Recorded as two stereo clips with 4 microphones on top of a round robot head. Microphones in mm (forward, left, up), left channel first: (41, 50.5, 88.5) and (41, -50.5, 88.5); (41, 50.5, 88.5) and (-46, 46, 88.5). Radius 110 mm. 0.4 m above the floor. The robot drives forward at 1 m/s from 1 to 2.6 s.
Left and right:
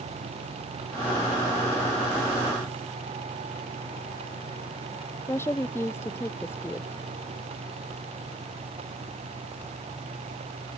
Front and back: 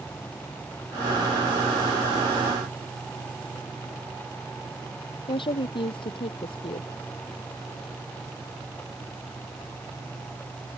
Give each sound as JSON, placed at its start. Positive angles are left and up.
{"t": 5.3, "sound": "a woman speaking", "azimuth_deg": 25}